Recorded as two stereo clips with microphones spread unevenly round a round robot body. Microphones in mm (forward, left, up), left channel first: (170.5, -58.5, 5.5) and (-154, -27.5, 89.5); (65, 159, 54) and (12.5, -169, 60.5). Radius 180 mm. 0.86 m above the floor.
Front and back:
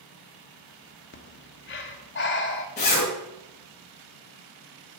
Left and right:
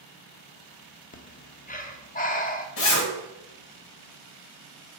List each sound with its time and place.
1.1 s breathing: 20° left, 1.2 m
2.8 s a zipper: 65° left, 3 m